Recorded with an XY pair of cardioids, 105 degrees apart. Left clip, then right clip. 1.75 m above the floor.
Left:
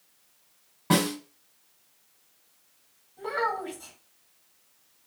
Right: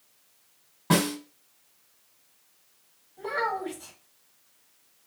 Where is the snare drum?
Straight ahead, 1.7 m.